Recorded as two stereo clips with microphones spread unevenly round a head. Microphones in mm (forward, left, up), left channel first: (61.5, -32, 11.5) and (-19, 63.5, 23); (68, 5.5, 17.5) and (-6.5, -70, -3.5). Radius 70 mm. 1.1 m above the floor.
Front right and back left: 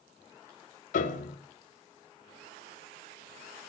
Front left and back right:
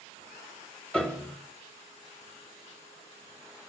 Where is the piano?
35° right, 1.0 m.